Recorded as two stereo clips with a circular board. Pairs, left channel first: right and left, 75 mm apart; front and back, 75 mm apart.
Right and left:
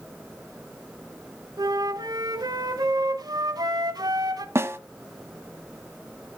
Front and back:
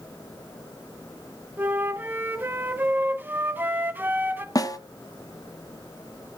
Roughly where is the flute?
Behind left.